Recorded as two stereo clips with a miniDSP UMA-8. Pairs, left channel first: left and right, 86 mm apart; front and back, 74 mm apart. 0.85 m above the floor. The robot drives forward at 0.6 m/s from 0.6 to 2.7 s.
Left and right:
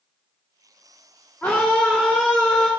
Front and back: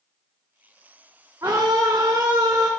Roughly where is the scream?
Behind left.